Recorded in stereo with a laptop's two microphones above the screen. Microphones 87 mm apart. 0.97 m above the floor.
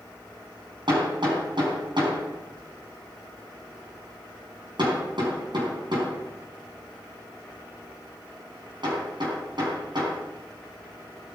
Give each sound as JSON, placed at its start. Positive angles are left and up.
{"t": 0.9, "sound": "hammering", "side_deg": -65, "distance_m": 5.0}